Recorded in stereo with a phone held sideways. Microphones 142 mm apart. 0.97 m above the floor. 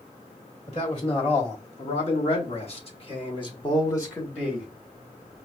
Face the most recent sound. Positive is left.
turn(degrees=5)  # may be behind; listen again after turning